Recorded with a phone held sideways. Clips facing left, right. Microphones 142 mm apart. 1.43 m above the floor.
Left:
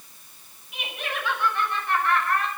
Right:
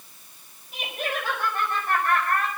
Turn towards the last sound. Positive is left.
turn(degrees=-50)  # may be behind; listen again after turning